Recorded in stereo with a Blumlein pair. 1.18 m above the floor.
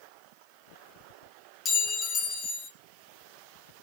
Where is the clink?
15° left, 0.6 m.